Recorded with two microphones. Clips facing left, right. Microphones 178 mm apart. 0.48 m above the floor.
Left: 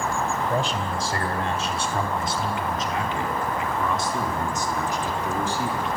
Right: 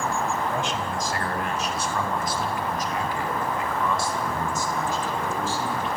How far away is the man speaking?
About 3.5 m.